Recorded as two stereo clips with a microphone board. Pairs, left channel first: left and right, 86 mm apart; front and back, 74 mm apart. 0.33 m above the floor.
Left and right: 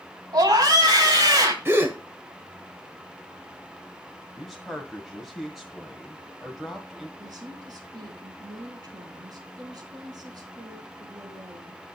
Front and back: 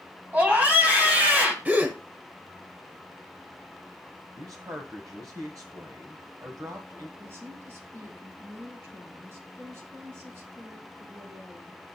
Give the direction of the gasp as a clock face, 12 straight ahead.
4 o'clock.